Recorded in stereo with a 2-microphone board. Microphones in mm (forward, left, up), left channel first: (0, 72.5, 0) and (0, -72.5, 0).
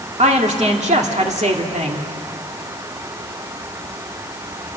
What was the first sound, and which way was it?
A woman speaking, 50° right (ahead or behind).